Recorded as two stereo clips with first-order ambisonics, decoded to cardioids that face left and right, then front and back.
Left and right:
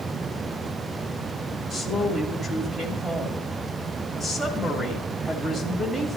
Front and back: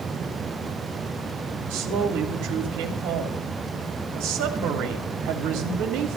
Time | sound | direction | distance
1.7 | a woman speaking | 175° right | 1.7 m